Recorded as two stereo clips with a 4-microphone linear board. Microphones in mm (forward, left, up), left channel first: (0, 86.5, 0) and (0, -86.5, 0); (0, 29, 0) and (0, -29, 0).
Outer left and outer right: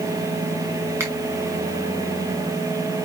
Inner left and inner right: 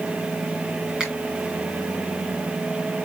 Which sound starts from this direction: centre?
A finger snap, at 1.0 s.